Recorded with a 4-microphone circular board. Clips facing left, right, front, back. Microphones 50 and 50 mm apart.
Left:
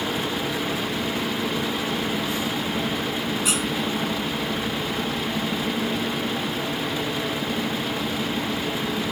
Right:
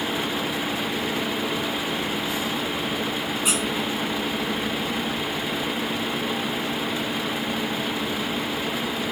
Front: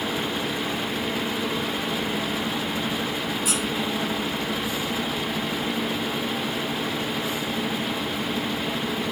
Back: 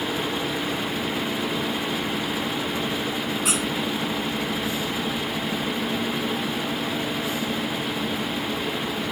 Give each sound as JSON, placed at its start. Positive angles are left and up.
{"t": 3.5, "sound": "a squeak", "azimuth_deg": -160, "distance_m": 3.5}